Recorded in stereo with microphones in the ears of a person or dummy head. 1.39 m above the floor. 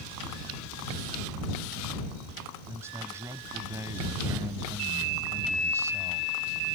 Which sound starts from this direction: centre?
A man speaking, at 2.7 s.